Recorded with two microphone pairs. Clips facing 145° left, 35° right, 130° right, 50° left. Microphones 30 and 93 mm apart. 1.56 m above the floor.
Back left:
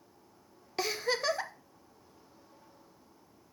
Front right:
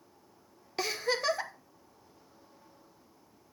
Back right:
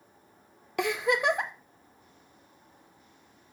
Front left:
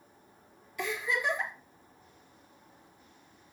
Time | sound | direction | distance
0.8 | a giggle | 130° right | 0.7 m